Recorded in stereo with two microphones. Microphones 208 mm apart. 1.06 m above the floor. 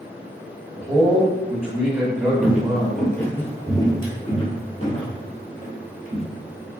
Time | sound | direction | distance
0.8 | a man speaking | 10° right (ahead or behind) | 1.3 m
2.4 | footsteps | 10° right (ahead or behind) | 1.1 m